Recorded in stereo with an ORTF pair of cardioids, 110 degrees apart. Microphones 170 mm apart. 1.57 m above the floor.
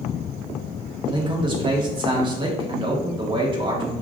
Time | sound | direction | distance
1.1 | a man speaking | 25° right | 1.4 m